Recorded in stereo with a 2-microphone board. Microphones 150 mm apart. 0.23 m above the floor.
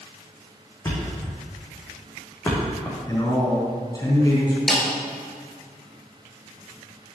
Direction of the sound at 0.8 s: 20° left (ahead or behind).